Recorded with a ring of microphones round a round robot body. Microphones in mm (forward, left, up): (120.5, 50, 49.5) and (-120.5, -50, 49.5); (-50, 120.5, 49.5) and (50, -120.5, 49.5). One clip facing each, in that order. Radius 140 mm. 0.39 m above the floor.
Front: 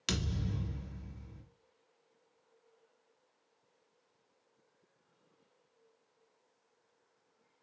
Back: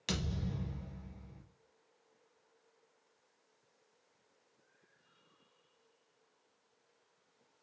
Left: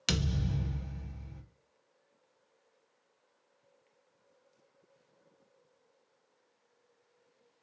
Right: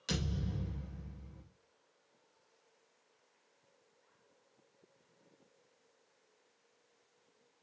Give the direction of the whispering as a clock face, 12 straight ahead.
No whispering in this recording.